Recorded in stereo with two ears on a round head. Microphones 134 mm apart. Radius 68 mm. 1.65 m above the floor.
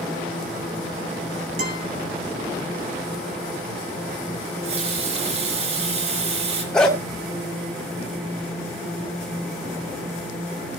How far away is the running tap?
About 5 m.